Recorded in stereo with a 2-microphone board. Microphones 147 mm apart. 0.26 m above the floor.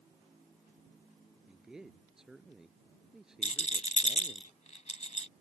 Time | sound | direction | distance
1.5 | a man speaking | 5° right (ahead or behind) | ?
3.4 | a rattle | 55° left (ahead or behind) | ?